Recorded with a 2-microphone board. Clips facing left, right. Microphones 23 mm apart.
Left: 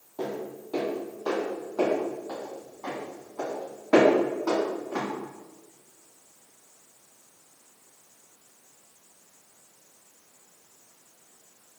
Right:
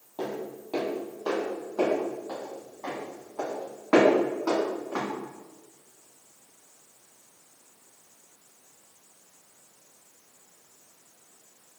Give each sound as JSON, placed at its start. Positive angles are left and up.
{"t": 0.2, "sound": "footsteps", "side_deg": -45, "distance_m": 1.9}